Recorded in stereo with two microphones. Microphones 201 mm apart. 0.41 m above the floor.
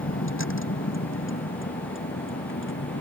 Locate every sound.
0.0 s a vehicle: 85° left; by 3.0 s 80° left